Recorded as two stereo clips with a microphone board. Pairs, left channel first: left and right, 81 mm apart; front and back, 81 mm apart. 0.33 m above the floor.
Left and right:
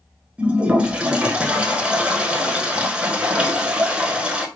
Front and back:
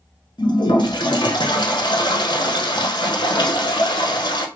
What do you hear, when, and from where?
0.4 s a toilet flushing: 15° right, 0.8 m